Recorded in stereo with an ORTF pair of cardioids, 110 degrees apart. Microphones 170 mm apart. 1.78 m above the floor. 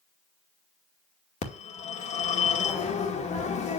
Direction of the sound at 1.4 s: 45° left.